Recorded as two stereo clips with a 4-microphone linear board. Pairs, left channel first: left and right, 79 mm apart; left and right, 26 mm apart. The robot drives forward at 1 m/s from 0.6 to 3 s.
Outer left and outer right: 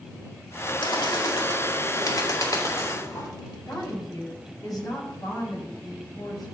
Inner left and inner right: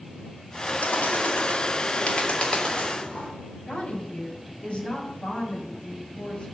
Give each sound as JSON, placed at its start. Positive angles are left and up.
{"t": 0.8, "sound": "a bird", "side_deg": 75, "distance_m": 2.5}
{"t": 3.7, "sound": "a woman speaking", "side_deg": 55, "distance_m": 4.5}